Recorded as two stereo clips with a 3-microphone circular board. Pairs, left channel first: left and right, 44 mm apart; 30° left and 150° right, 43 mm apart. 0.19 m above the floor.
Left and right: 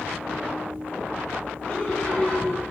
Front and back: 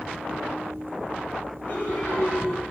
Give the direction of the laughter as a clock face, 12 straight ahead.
11 o'clock.